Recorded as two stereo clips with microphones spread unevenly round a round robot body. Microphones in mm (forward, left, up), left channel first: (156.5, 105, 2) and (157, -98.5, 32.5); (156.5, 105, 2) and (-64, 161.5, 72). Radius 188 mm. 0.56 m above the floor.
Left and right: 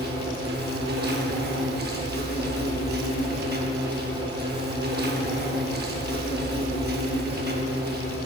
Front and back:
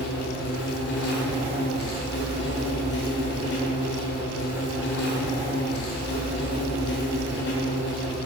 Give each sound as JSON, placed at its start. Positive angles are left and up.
{"t": 0.0, "sound": "an insect", "azimuth_deg": -45, "distance_m": 1.5}